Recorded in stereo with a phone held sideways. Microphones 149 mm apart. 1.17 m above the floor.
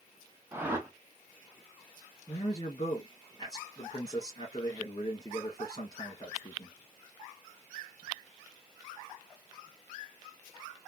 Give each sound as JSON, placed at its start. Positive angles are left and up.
{"t": 0.5, "sound": "a whoosh", "side_deg": -15, "distance_m": 1.0}
{"t": 2.3, "sound": "a man speaking", "side_deg": 30, "distance_m": 1.8}